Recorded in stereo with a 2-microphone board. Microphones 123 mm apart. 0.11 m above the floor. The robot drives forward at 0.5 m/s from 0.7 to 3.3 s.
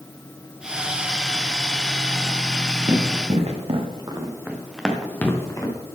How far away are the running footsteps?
About 2.5 m.